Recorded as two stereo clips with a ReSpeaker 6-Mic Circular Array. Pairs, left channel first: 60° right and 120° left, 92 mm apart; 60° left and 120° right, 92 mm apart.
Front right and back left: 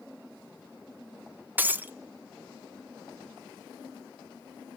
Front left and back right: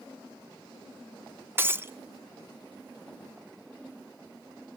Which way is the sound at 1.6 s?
175° right.